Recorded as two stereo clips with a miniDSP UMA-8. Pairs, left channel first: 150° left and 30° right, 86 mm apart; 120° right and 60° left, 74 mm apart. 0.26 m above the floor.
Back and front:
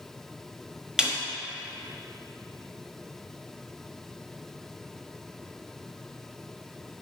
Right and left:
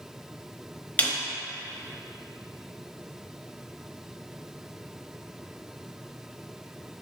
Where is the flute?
I don't hear a flute.